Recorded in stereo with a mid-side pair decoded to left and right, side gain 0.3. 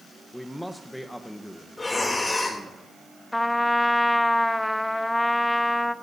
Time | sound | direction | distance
0.3 | a man speaking | 15° left | 1.1 m
1.8 | breathing | 40° left | 3 m
3.3 | a trumpet | 20° left | 0.8 m